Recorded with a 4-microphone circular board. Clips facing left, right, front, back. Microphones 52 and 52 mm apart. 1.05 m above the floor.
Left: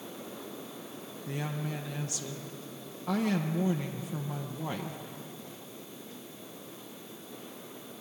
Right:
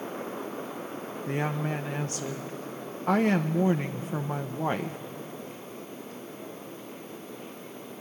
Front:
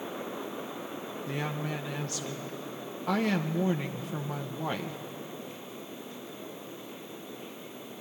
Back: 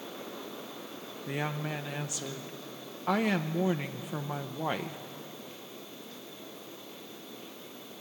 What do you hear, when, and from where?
1.3 s a woman speaking: 110° right, 0.8 m